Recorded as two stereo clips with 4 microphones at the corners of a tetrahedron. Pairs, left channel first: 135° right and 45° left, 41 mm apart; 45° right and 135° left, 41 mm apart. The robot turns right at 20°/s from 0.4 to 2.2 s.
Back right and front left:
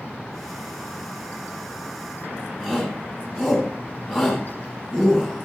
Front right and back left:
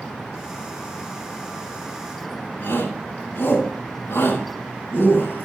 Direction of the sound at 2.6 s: 40° right.